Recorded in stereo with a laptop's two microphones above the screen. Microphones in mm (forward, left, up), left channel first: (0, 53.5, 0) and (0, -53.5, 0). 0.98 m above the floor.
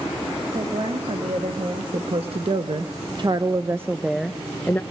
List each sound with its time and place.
0.5 s a woman speaking: 70° right (ahead or behind), 2 m; by 4.8 s 20° left (ahead or behind), 0.9 m